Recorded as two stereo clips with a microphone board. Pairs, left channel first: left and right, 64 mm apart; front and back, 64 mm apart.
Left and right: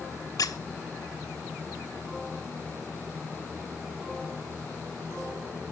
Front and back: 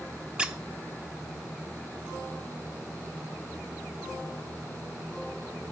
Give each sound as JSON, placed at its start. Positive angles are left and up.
{"t": 0.4, "sound": "a squeak", "azimuth_deg": 105, "distance_m": 0.7}